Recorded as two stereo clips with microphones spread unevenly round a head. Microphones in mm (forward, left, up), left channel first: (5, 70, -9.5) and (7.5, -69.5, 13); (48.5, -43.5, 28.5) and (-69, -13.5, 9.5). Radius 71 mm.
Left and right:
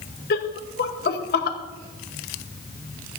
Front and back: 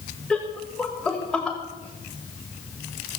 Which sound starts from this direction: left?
Laughter, at 0.3 s.